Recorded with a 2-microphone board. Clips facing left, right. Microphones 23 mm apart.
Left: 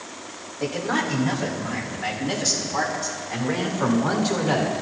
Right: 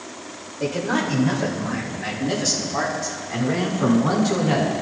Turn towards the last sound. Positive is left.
turn(degrees=15)  # may be behind; listen again after turning